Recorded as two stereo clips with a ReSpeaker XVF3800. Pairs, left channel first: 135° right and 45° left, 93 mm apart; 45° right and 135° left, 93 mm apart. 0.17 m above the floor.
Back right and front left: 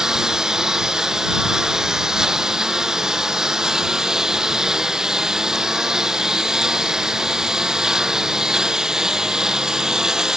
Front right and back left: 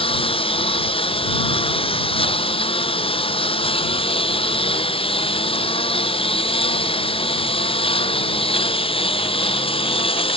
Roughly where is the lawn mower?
Ahead right.